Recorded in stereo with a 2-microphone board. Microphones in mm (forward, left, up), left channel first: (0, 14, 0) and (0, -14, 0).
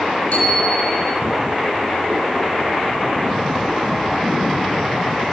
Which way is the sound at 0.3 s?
45° left (ahead or behind).